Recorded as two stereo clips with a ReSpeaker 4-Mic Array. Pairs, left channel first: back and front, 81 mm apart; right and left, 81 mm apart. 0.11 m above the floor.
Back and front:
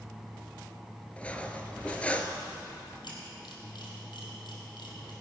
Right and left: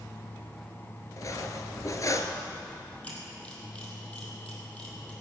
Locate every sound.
1.2 s cutlery clinking: 110° right, 0.9 m
3.0 s a camera shutter: 165° right, 3 m